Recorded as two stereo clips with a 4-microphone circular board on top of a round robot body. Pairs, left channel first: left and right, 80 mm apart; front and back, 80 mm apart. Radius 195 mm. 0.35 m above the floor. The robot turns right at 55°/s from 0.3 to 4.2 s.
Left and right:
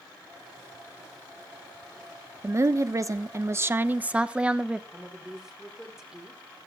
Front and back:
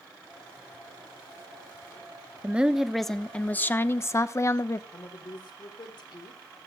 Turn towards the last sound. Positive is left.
turn(degrees=-5)